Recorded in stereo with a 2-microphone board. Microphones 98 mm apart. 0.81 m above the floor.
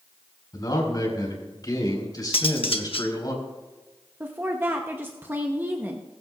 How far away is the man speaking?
About 4 m.